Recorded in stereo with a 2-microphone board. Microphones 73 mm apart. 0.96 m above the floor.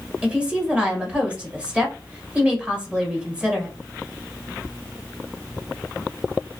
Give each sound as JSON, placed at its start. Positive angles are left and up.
{"t": 0.2, "sound": "a woman speaking", "side_deg": -15, "distance_m": 1.4}